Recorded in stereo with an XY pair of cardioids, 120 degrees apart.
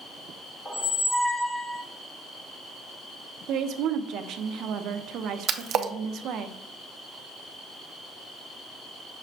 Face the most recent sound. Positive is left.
turn(degrees=-55)